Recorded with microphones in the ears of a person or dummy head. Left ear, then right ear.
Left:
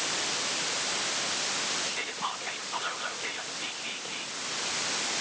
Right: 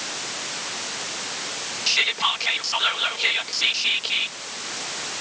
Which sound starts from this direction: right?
Whispering, at 1.9 s.